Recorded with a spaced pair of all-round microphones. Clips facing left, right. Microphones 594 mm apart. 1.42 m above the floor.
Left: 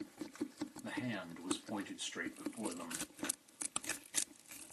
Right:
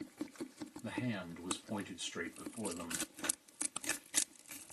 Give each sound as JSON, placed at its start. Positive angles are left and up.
{"t": 0.8, "sound": "a man speaking", "side_deg": -35, "distance_m": 2.5}